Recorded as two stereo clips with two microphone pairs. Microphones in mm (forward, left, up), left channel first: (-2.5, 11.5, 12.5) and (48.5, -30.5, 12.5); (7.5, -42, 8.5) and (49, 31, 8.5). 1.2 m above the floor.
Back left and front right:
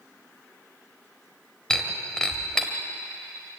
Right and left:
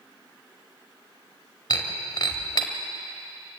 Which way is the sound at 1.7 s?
140° right.